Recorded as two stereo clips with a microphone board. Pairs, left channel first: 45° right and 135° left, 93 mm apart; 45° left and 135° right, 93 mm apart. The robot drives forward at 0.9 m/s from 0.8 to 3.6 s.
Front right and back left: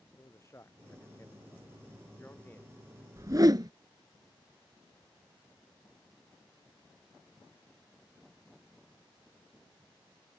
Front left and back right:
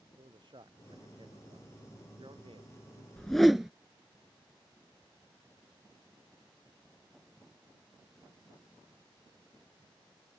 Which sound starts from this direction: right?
A man speaking, at 0.2 s.